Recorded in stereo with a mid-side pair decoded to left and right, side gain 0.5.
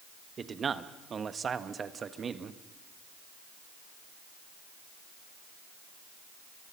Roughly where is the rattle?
No rattle in this recording.